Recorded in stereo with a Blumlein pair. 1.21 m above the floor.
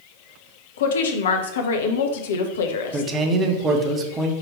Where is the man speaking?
20° right, 0.7 m.